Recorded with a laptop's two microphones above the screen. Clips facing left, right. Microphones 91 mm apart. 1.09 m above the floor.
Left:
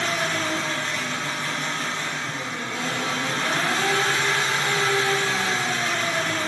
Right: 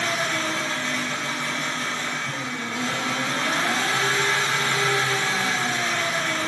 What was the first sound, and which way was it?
An engine running, 40° left (ahead or behind).